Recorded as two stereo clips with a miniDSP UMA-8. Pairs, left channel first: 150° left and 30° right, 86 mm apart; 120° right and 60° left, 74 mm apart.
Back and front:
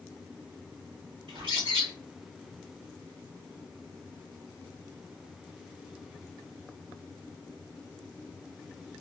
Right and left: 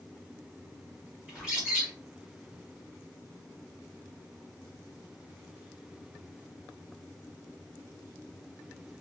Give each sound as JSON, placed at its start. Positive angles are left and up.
{"t": 1.3, "sound": "a bird", "azimuth_deg": -20, "distance_m": 1.9}